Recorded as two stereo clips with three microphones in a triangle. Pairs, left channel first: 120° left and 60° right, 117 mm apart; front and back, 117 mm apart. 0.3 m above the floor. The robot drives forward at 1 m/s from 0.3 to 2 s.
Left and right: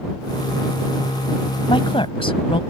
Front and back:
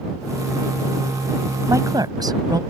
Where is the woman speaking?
125° left; by 2.6 s 135° left.